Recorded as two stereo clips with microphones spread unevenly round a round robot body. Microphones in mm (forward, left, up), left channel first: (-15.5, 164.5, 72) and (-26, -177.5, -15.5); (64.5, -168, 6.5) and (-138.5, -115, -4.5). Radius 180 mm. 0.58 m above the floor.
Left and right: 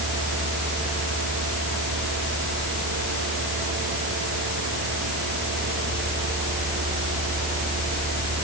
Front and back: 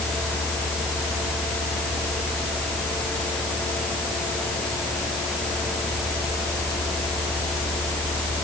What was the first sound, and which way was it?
Only background noise.